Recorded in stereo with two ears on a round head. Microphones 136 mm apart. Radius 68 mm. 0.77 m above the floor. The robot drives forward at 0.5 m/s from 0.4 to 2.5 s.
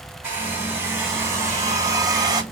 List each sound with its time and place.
0.2 s a hair dryer: 15° right (ahead or behind), 1.4 m; by 2.4 s 25° right (ahead or behind), 0.7 m